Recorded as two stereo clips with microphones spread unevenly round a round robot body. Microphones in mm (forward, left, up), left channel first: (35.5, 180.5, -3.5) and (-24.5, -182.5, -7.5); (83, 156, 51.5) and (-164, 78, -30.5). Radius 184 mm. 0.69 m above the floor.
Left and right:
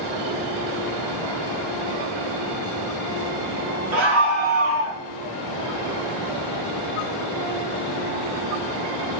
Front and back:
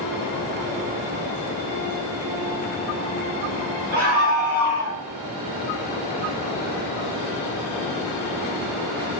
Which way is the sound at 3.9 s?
110° right.